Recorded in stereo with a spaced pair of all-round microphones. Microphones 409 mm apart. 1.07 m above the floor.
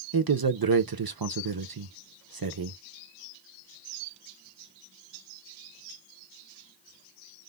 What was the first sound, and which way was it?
A man speaking, 60° right (ahead or behind).